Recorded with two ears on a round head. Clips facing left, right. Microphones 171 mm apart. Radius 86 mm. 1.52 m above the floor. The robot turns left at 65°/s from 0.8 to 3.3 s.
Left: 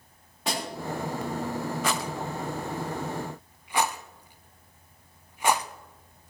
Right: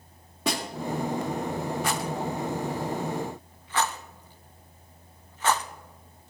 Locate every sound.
0.5 s a snare drum: 85° right, 4 m
1.8 s a rattle: 60° left (ahead or behind), 0.6 m; by 5.7 s 10° left (ahead or behind), 0.6 m